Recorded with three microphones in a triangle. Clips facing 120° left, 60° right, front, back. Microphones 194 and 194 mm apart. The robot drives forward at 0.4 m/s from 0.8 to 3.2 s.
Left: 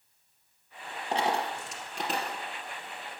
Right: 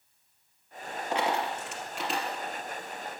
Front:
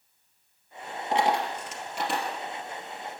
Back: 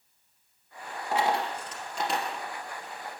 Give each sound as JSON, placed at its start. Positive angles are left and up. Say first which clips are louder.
{"t": 1.1, "sound": "a dropped coin", "louder": "even, front 2 dB", "azimuth_deg": 70, "distance_m": 1.4}